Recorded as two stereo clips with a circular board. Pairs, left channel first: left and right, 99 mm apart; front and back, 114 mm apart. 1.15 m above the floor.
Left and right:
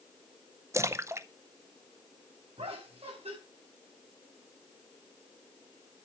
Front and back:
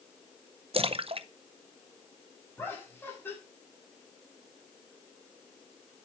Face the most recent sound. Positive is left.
turn(degrees=-70)